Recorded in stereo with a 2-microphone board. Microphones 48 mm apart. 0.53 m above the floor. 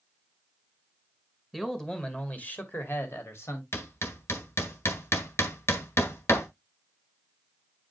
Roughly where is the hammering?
Left.